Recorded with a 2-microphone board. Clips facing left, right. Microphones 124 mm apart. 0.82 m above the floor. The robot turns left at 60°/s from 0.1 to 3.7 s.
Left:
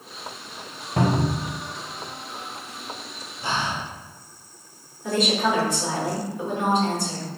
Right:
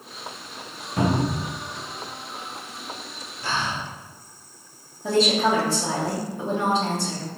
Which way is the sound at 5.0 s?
30° right (ahead or behind).